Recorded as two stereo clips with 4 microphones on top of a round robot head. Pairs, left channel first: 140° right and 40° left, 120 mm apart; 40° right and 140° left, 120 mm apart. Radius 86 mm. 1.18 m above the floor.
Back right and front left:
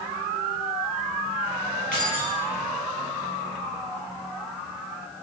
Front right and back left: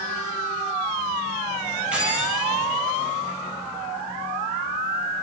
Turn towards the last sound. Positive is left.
turn(degrees=-140)